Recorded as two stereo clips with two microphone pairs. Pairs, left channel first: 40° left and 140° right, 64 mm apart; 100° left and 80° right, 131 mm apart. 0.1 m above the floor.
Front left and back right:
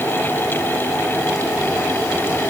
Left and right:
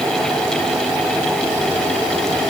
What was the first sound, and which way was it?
Only background noise.